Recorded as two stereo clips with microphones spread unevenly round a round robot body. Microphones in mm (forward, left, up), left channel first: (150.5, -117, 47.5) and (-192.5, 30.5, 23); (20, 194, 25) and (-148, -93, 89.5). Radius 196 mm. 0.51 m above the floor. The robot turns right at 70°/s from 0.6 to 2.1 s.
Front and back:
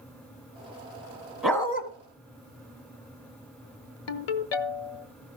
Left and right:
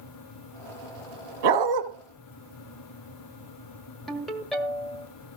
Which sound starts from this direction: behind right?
A dog barking, at 1.4 s.